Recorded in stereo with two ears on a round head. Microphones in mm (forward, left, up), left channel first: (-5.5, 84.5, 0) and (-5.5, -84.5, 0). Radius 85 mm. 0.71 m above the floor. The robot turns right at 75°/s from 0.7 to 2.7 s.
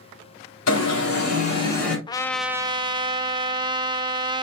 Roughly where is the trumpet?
Behind left.